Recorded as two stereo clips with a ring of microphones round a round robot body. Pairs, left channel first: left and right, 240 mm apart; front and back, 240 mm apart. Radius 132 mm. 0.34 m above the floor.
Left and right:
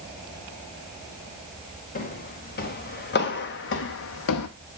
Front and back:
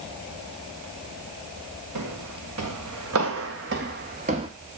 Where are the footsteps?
145° left, 2 m; by 4.5 s 110° left, 0.9 m.